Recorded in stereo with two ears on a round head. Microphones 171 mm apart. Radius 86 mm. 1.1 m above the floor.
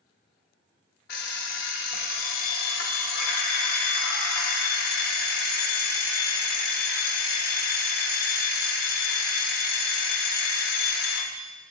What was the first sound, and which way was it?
An alarm clock, 55° left (ahead or behind).